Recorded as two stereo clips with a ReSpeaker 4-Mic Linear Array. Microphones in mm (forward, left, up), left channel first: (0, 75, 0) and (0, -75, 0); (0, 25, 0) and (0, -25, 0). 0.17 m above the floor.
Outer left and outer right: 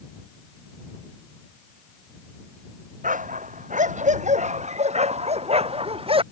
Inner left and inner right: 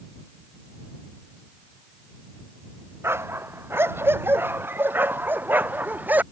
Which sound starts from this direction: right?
A dog barking, at 3.0 s.